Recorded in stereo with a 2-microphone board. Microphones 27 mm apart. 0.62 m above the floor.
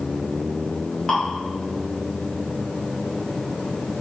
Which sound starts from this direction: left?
Dripping, at 1.1 s.